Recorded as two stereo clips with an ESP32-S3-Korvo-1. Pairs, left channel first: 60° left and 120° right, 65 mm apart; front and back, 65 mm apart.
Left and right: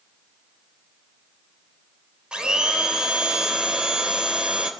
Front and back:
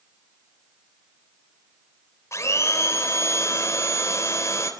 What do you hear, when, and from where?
2.3 s a blender: 45° right, 3 m